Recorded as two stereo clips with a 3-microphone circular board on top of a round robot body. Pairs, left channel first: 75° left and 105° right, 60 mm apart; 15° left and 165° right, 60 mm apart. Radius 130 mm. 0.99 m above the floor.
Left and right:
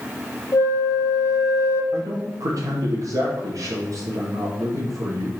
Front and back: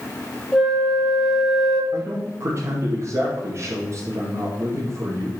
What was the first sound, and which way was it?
A flute, 100° left.